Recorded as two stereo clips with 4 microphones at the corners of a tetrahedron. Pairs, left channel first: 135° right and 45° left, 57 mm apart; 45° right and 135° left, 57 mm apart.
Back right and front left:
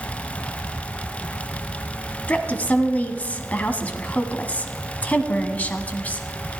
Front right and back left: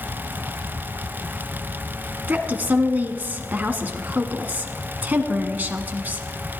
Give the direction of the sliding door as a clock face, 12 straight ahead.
No sliding door in this recording.